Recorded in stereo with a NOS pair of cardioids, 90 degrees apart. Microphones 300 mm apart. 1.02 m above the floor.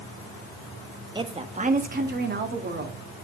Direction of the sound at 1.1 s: 15° right.